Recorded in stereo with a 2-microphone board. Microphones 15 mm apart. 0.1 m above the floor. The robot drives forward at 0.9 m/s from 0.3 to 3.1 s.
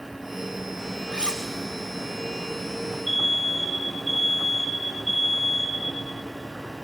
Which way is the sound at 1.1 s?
70° right (ahead or behind).